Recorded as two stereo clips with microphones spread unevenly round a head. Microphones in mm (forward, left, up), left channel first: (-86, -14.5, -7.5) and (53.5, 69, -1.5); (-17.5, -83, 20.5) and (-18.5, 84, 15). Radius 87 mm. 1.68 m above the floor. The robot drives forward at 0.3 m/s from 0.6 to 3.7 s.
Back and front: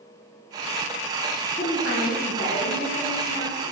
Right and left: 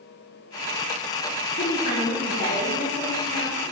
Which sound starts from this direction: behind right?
A woman speaking, at 1.6 s.